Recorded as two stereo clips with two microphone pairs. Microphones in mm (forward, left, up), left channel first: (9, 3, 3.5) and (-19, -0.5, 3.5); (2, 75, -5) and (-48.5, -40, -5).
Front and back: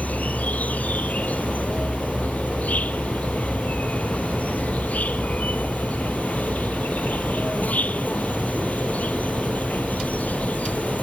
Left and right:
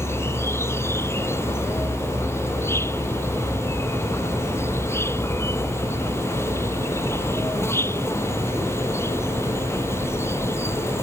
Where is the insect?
Straight ahead.